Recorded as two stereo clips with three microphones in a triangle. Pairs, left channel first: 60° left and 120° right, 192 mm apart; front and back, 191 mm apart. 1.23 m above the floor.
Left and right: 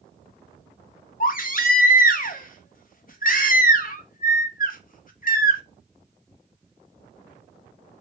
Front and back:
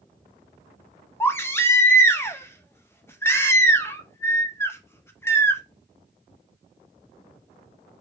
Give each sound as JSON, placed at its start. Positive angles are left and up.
{"t": 1.2, "sound": "a baby crying", "azimuth_deg": 75, "distance_m": 0.6}